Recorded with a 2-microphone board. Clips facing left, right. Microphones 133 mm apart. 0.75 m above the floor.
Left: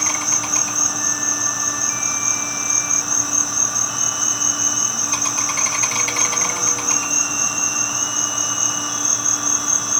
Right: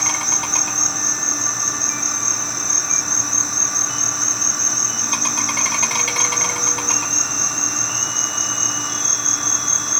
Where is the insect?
70° right (ahead or behind), 1.7 m.